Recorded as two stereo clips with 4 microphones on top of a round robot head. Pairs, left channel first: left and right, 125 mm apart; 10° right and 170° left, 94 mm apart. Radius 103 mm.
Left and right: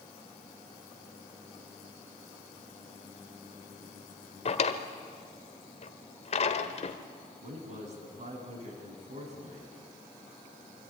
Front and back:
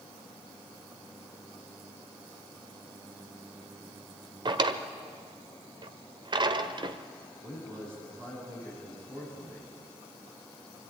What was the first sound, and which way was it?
A drawer, 130° left.